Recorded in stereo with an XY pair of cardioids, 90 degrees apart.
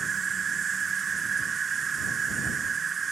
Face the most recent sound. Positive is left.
turn(degrees=-50)